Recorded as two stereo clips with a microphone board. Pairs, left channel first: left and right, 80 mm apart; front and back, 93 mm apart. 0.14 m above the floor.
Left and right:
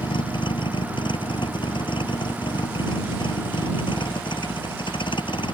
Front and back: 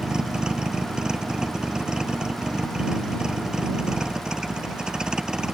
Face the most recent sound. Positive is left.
turn(degrees=95)